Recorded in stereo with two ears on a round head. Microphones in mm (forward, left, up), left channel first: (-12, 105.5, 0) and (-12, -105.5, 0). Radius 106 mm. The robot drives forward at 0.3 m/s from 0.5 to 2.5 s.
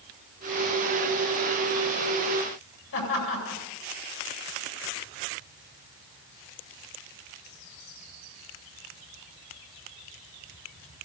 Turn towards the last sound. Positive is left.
turn(degrees=70)  # may be behind; listen again after turning